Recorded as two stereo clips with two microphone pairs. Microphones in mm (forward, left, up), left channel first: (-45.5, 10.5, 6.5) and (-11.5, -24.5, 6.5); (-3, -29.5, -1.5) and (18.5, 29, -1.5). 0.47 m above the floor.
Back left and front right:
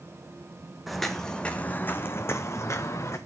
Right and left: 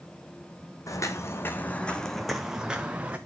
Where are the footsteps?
135° right, 1.3 m; by 3.2 s 140° left, 1.8 m.